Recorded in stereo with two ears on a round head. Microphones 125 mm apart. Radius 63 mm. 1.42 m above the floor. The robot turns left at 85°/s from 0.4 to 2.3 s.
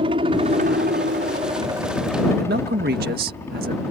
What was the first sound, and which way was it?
A helicopter, 40° right.